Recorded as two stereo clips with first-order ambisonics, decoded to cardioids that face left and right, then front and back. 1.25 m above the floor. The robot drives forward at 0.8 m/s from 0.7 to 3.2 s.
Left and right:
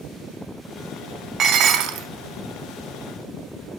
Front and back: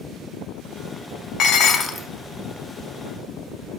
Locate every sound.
1.4 s dishes clattering: 35° right, 0.7 m; by 2.1 s 90° right, 0.5 m